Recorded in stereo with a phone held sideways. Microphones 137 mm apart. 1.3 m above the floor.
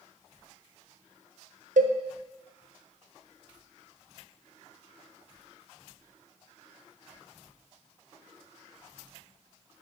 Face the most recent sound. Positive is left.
turn(degrees=-75)  # may be behind; listen again after turning